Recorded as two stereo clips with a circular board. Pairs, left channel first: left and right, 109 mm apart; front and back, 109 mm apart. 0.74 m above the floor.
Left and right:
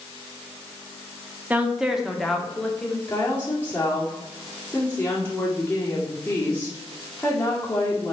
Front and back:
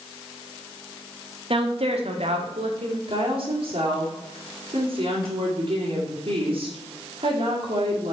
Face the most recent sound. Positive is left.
turn(degrees=160)